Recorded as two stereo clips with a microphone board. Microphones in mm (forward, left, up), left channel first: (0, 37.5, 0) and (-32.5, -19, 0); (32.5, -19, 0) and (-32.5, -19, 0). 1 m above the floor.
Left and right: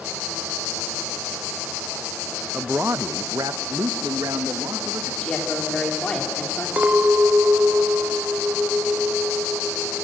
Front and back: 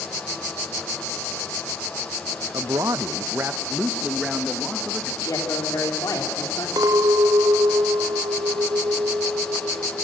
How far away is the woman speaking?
About 3 m.